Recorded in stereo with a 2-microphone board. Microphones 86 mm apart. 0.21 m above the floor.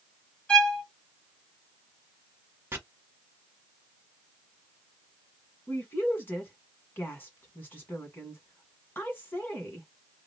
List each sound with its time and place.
0.5 s a violin: 10° left (ahead or behind), 1.5 m
2.7 s chopping: 30° right (ahead or behind), 1.1 m
5.7 s a woman speaking: 25° left (ahead or behind), 1.5 m